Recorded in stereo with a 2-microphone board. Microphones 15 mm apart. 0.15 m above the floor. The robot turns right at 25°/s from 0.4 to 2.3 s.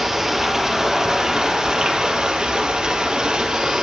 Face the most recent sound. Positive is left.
turn(degrees=-105)